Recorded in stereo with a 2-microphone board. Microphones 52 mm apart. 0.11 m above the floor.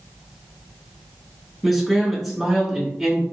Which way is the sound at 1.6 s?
Centre (ahead or behind).